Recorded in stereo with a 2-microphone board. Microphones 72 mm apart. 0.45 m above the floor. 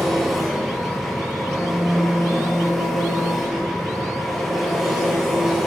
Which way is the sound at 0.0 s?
Centre (ahead or behind).